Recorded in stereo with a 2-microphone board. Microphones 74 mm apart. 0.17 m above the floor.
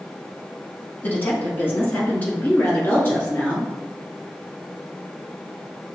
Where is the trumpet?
I don't hear a trumpet.